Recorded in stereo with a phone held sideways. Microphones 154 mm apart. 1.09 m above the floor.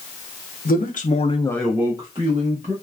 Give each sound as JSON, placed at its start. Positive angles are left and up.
{"t": 0.7, "sound": "a man speaking", "side_deg": 70, "distance_m": 0.9}